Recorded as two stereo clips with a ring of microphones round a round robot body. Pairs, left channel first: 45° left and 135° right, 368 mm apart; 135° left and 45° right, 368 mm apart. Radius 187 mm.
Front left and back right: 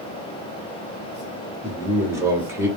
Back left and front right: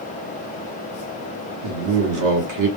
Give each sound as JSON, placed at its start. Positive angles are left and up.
{"t": 1.6, "sound": "a man speaking", "azimuth_deg": -55, "distance_m": 1.0}